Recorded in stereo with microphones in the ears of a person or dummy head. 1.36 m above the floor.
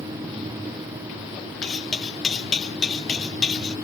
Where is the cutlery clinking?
5° left (ahead or behind).